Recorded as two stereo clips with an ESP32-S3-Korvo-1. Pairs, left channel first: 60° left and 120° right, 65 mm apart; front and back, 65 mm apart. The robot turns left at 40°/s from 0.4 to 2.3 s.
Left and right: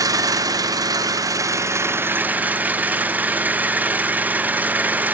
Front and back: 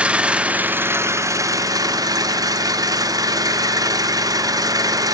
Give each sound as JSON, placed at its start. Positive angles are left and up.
{"t": 0.0, "sound": "an engine running", "azimuth_deg": -110, "distance_m": 0.9}